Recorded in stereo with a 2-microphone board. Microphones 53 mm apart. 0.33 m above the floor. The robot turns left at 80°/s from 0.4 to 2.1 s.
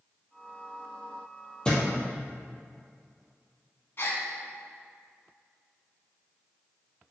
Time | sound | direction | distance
1.6 | a thud | 20° left (ahead or behind) | 2.5 m
4.0 | a gasp | 55° left (ahead or behind) | 1.4 m